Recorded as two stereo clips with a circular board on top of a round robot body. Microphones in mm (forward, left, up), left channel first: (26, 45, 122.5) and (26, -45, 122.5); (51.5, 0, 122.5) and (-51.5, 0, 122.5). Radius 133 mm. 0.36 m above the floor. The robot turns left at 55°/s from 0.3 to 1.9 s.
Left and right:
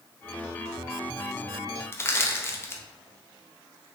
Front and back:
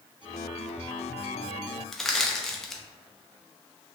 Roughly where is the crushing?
Left.